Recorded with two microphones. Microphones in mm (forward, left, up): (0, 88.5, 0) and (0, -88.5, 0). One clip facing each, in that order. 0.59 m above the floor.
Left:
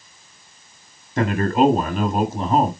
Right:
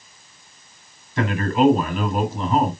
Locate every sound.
1.2 s a man speaking: 45° left (ahead or behind), 2 m